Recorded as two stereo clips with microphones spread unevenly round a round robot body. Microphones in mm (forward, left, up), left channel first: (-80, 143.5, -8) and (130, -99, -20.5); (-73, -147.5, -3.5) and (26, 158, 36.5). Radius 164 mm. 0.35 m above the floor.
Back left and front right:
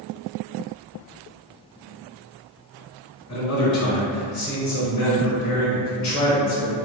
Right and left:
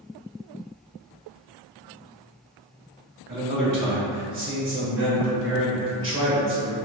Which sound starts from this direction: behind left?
A man speaking, at 3.3 s.